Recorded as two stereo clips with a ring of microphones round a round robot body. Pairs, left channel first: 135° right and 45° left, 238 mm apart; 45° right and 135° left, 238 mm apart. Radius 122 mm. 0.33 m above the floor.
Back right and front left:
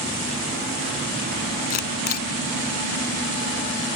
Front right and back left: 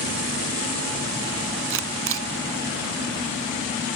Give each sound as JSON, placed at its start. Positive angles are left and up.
{"t": 1.7, "sound": "a camera shutter", "azimuth_deg": 170}